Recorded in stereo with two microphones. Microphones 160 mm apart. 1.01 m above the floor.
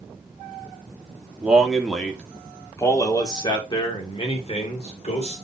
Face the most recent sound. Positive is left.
turn(degrees=45)  # may be behind; listen again after turning